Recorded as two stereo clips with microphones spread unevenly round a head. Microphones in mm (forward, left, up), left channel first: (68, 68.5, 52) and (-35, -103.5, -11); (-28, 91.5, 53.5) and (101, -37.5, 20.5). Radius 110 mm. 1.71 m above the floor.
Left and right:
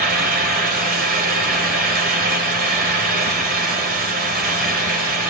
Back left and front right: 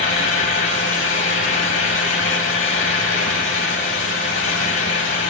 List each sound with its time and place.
0.0 s a fan: straight behind, 1.6 m